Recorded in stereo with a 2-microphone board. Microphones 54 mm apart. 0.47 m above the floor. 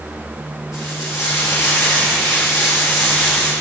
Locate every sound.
0.7 s frying: 65° left (ahead or behind), 3.5 m